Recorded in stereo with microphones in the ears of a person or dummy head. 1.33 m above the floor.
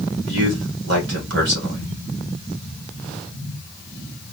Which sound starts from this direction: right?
A man speaking, at 0.3 s.